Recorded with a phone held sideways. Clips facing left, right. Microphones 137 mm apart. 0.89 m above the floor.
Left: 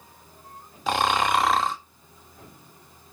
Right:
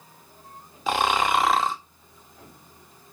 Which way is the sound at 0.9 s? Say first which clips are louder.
Even; centre (ahead or behind).